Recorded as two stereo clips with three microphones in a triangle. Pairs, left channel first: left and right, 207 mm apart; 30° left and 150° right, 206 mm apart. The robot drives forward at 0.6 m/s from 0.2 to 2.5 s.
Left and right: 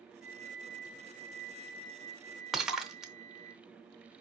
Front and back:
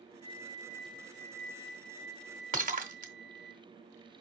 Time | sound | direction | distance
0.2 | a flute | 85° right | 1.4 m
2.5 | breaking glass | straight behind | 0.9 m